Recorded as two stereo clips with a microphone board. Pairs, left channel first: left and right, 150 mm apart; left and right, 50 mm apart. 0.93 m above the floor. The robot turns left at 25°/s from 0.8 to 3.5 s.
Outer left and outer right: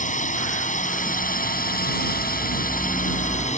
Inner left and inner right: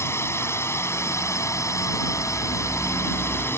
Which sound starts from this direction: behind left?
A drone, at 0.0 s.